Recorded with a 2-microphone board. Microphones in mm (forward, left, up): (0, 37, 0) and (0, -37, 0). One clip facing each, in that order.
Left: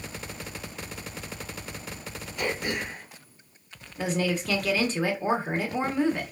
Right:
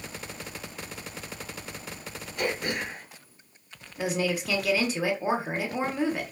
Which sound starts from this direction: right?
Throat clearing, at 2.4 s.